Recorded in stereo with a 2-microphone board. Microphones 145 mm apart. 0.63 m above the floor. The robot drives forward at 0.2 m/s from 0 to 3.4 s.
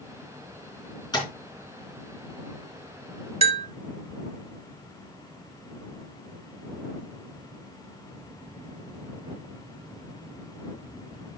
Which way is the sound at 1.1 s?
25° left (ahead or behind).